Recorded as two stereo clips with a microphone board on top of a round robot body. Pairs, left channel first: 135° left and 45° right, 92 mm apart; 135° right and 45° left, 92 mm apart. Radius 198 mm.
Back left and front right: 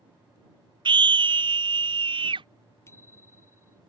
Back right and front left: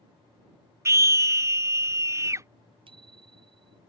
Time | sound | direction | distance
0.8 | a scream | 15° right | ?
2.9 | a bicycle bell | 70° left | ?